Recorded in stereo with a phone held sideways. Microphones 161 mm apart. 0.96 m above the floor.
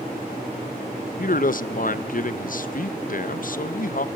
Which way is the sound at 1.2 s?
60° left (ahead or behind).